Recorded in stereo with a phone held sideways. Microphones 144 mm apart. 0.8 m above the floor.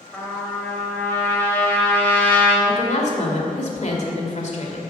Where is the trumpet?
10° left (ahead or behind), 3 m.